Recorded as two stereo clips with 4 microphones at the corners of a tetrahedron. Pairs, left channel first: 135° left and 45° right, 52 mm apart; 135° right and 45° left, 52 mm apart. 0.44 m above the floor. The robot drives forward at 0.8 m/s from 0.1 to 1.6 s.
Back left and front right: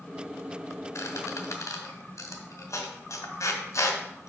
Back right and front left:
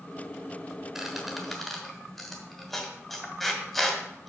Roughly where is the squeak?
Behind left.